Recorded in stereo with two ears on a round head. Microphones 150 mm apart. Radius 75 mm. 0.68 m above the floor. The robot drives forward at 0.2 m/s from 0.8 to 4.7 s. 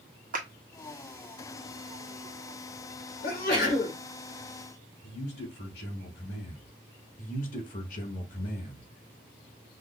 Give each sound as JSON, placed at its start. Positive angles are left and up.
{"t": 0.3, "sound": "a clap", "side_deg": -50, "distance_m": 1.2}
{"t": 3.2, "sound": "a sneeze", "side_deg": 55, "distance_m": 3.5}
{"t": 5.0, "sound": "a man speaking", "side_deg": 65, "distance_m": 3.0}
{"t": 7.2, "sound": "a man speaking", "side_deg": 50, "distance_m": 1.4}